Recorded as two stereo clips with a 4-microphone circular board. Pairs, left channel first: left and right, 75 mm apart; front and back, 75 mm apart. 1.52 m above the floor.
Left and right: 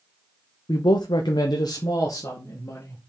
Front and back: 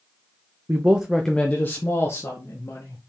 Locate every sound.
0.7 s a man speaking: 120° left, 0.6 m; by 3.0 s 45° left, 1.8 m